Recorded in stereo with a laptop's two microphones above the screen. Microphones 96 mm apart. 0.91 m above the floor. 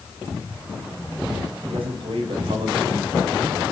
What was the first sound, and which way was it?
A man speaking, 80° right.